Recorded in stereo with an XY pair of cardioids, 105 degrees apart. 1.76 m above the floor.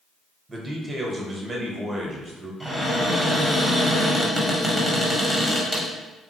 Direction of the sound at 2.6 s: Straight ahead.